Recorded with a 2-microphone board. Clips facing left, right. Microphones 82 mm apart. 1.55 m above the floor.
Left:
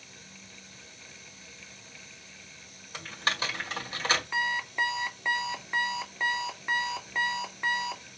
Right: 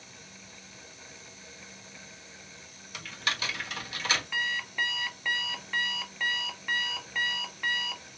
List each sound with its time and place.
2.9 s typing on a keyboard: 35° left (ahead or behind), 2 m
4.3 s an alarm clock: 20° left (ahead or behind), 0.6 m